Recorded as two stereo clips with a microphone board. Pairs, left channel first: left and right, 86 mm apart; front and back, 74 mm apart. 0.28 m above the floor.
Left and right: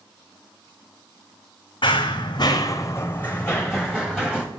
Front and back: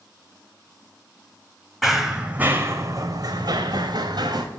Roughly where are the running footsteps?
Left.